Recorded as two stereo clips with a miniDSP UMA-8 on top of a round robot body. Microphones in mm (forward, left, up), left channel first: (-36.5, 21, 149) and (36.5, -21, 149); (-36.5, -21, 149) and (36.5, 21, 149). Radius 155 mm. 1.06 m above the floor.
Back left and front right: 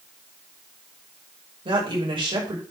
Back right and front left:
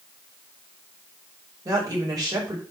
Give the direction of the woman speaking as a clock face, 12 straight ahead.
12 o'clock.